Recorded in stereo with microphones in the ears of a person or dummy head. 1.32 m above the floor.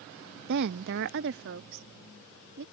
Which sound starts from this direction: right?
A woman speaking, at 0.5 s.